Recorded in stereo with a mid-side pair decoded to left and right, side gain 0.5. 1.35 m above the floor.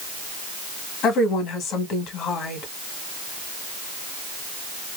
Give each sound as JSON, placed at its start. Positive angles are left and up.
{"t": 1.0, "sound": "a woman speaking", "azimuth_deg": 70, "distance_m": 1.9}